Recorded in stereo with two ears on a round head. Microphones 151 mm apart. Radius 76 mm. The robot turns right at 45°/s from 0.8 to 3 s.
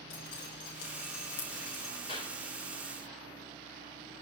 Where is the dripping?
85° left, 6 m; by 1.9 s 40° left (ahead or behind), 6 m.